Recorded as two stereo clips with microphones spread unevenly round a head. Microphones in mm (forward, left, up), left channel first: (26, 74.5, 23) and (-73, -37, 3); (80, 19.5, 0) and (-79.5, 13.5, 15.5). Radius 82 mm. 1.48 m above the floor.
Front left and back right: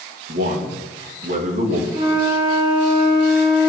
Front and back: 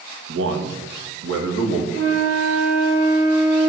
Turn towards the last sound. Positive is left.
turn(degrees=170)